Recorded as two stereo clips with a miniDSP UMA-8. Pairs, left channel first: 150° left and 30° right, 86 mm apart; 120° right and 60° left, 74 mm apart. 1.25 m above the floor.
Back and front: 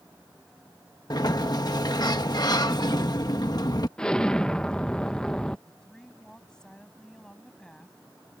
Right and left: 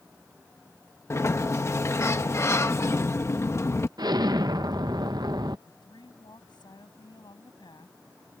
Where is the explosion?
70° left.